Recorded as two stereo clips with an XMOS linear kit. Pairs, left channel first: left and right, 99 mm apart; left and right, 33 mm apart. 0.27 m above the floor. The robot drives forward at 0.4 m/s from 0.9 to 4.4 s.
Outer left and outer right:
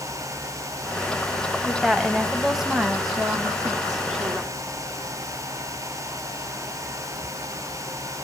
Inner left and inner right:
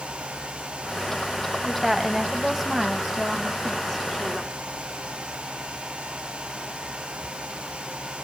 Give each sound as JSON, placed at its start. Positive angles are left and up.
{"t": 1.6, "sound": "a woman speaking", "side_deg": -5, "distance_m": 1.3}